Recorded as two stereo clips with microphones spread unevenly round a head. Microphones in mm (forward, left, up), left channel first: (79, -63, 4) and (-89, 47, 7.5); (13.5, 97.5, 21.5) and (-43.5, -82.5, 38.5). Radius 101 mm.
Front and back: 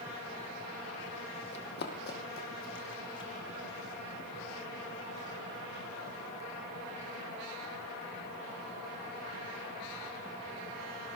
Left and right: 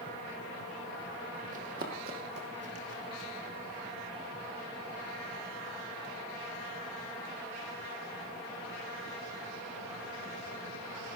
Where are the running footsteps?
60° right, 2.5 m; by 3.3 s 85° right, 3.5 m.